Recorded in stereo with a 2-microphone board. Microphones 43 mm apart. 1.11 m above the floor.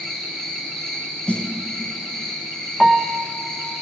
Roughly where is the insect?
Centre.